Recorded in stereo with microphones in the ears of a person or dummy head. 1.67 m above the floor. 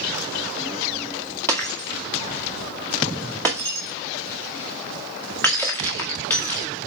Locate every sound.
1.5 s breaking glass: 10° left (ahead or behind), 2 m